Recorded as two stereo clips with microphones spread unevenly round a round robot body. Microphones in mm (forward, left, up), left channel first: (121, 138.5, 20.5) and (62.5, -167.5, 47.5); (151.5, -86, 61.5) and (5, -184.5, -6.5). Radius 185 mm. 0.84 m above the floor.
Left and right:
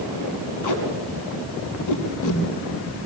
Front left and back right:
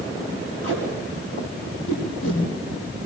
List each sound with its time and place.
0.6 s tape being pulled: 55° left, 7 m